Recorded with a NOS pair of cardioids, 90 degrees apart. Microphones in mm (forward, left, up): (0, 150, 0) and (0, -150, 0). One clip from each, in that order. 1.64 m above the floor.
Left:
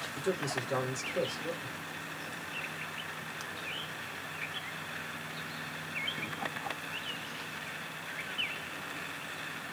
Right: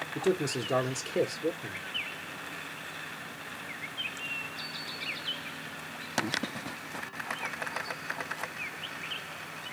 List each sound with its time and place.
0.1 s a man speaking: 65° right, 0.8 m